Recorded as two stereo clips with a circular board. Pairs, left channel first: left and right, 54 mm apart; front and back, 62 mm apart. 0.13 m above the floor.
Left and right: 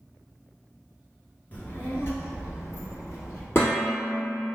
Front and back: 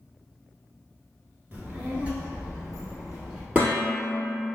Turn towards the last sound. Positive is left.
turn(degrees=115)